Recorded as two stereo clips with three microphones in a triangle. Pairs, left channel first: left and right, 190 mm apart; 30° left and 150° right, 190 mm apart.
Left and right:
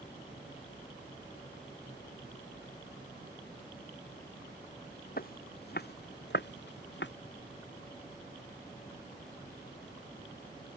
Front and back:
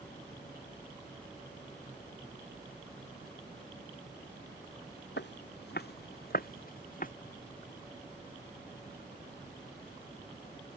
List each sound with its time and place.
5.2 s footsteps: 50° left; by 7.1 s 75° left